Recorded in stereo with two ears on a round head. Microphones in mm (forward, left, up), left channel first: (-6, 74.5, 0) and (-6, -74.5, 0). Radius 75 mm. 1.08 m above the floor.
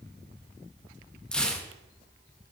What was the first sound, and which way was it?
Tearing paper, 5° left (ahead or behind).